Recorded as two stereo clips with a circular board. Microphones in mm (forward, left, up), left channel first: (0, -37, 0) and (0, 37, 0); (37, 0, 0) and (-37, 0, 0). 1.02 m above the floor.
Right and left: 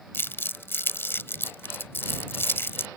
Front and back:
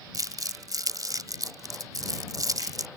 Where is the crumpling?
145° right.